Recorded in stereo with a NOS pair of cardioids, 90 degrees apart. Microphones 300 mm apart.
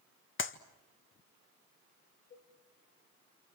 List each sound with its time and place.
0.4 s a clap: 40° left, 1.8 m
2.3 s a cowbell: 45° left, 9.5 m